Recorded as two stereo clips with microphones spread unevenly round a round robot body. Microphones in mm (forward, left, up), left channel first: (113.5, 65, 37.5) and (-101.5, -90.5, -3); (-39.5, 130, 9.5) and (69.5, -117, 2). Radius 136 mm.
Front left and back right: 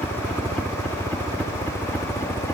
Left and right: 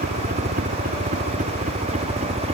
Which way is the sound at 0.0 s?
65° right.